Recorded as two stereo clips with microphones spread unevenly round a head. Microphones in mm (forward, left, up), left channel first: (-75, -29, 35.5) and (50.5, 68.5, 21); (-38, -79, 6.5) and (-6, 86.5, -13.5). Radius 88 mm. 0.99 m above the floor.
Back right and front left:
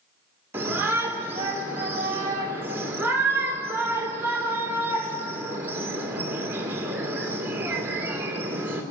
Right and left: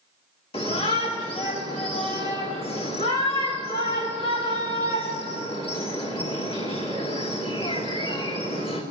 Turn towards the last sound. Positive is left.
turn(degrees=-40)